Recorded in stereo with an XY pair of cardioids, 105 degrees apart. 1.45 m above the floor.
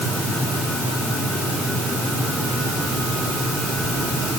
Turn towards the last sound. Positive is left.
No sound to turn to.